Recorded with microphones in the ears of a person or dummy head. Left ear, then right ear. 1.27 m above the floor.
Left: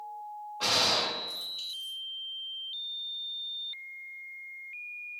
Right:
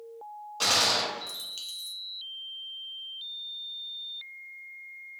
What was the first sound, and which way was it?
A gunshot, 80° right.